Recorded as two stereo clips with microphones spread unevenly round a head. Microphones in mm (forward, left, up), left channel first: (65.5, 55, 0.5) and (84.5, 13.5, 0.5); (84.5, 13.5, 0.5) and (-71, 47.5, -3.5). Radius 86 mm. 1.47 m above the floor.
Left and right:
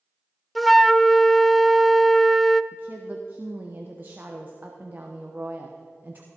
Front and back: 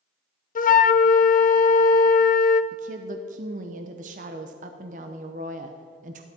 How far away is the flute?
About 0.7 m.